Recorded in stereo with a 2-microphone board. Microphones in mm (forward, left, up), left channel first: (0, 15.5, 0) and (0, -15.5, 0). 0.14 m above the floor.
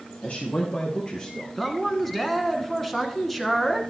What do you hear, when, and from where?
0.2 s a man speaking: 50° left (ahead or behind), 3 m; by 1.5 s 35° left (ahead or behind), 2 m
1.6 s a man speaking: 5° left (ahead or behind), 1.2 m